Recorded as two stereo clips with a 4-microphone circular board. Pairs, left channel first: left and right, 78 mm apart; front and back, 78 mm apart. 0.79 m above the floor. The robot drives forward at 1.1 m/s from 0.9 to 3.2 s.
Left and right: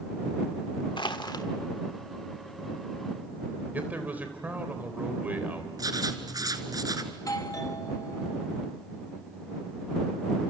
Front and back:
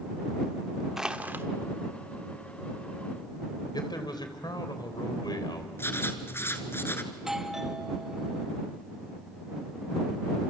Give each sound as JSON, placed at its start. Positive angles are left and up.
{"t": 1.0, "sound": "crushing", "azimuth_deg": 95, "distance_m": 1.1}
{"t": 3.7, "sound": "a man speaking", "azimuth_deg": -20, "distance_m": 3.5}
{"t": 5.8, "sound": "writing", "azimuth_deg": -55, "distance_m": 1.8}
{"t": 7.1, "sound": "a doorbell", "azimuth_deg": 100, "distance_m": 1.5}